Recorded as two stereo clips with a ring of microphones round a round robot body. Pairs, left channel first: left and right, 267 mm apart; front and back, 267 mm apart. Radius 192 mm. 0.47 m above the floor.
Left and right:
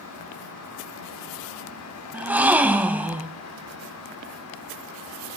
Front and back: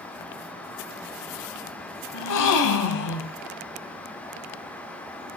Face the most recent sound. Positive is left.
turn(degrees=-5)